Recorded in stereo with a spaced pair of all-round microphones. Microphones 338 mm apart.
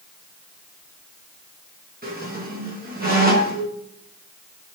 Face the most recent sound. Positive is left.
turn(degrees=-25)  # may be behind; listen again after turning